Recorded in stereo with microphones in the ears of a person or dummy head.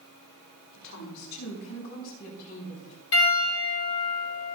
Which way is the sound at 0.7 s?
70° left (ahead or behind).